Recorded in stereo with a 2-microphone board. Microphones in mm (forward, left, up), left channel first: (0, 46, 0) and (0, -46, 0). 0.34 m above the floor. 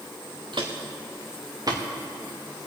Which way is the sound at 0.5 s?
60° right (ahead or behind).